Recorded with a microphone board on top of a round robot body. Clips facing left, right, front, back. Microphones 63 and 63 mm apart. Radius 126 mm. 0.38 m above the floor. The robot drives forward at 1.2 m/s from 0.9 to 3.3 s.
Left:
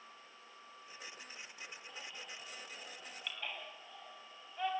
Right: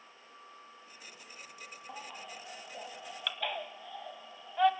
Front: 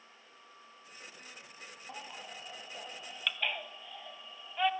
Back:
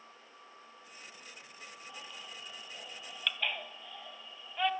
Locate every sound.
1.9 s a baby crying: 45° right, 2.5 m; by 4.7 s 85° right, 2.0 m